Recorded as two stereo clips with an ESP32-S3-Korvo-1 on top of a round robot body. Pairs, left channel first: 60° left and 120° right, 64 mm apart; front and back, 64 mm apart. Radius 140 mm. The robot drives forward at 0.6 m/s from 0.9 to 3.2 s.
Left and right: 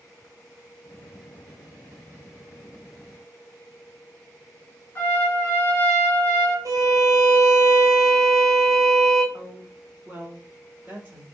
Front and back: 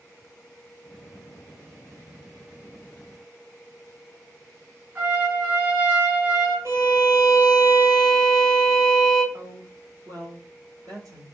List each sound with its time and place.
5.0 s a trumpet: 120° left, 2 m
6.7 s a violin: 140° right, 1.2 m
9.3 s a woman speaking: 175° left, 1.7 m